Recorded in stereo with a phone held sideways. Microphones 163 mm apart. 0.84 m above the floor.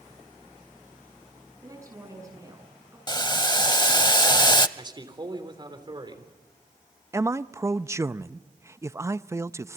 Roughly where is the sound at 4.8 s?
Right.